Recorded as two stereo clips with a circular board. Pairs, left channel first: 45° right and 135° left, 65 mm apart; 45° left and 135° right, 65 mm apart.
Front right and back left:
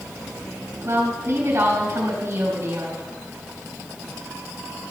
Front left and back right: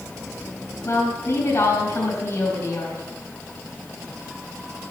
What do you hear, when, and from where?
0.8 s a woman speaking: 90° left, 3.5 m